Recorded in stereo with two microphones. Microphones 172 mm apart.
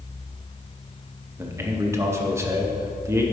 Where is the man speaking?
15° right (ahead or behind), 0.8 m.